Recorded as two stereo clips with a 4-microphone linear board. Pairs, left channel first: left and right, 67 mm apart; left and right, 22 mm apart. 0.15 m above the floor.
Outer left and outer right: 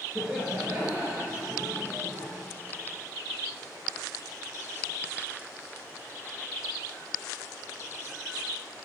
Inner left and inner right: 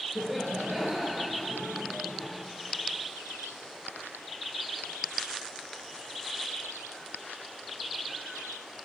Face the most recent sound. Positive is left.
turn(degrees=-55)  # may be behind; listen again after turning